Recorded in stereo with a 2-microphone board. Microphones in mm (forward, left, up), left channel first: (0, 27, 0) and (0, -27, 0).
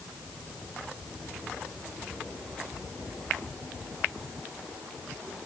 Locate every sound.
Only background noise.